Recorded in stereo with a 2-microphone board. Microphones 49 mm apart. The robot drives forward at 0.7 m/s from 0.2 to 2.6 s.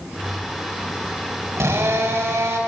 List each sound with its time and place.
1.6 s a drill: 80° right, 4.5 m